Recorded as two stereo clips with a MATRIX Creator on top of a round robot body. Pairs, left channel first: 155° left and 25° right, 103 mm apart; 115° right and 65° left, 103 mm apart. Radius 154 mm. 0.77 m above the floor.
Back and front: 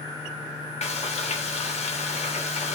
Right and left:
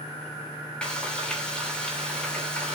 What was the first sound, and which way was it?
Frying, 165° left.